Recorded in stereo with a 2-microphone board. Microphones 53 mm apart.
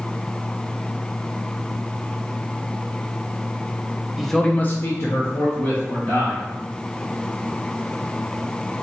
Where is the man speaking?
5° right (ahead or behind), 0.7 m; by 6.4 s 55° left (ahead or behind), 2.0 m.